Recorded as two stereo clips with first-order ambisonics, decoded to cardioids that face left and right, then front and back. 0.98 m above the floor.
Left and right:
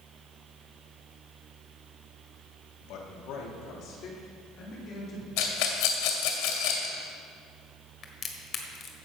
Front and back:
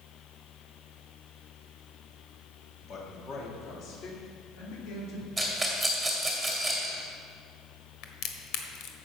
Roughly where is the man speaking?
Ahead left.